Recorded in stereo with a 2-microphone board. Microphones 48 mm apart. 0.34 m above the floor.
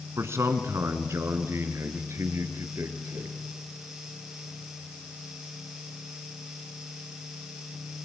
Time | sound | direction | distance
0.2 | a man speaking | 70° right (ahead or behind) | 3 m